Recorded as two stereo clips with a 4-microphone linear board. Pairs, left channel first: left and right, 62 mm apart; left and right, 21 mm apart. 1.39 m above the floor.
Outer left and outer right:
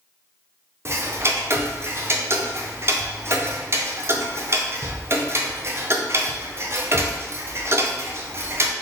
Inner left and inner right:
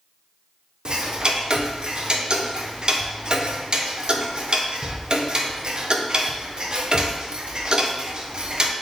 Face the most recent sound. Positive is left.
turn(degrees=-45)  # may be behind; listen again after turning